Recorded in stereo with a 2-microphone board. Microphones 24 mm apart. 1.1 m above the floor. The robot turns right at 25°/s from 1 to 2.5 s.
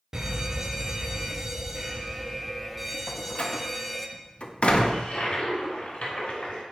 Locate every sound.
0.1 s an alarm: 50° right, 0.5 m; by 4.1 s 10° right, 0.5 m
3.1 s a door slam: 55° left (ahead or behind), 0.6 m
4.9 s a toilet flushing: 75° left (ahead or behind), 1.5 m